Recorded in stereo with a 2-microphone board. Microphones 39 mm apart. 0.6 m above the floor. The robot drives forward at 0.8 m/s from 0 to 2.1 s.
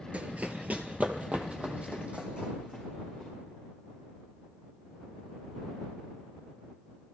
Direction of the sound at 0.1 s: 35° right (ahead or behind).